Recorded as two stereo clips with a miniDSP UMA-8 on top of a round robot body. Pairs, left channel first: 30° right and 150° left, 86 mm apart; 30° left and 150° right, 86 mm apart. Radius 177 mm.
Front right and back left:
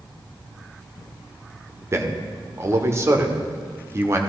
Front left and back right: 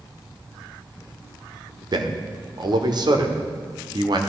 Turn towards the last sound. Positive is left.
turn(degrees=-160)